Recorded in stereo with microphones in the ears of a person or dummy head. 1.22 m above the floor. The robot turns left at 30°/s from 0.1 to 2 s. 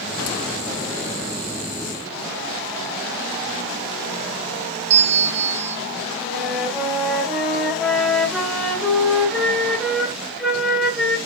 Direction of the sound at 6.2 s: Centre (ahead or behind).